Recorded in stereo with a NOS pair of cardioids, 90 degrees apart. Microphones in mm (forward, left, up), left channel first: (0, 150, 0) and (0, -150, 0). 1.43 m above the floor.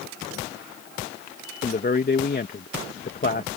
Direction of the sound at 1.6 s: 30° left.